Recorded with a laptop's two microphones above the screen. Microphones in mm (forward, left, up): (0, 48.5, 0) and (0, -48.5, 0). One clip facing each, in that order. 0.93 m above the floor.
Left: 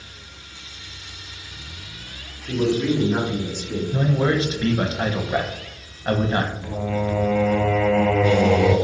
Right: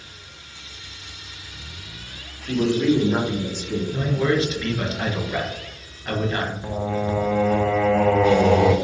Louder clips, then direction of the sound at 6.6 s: Even; 30° right (ahead or behind).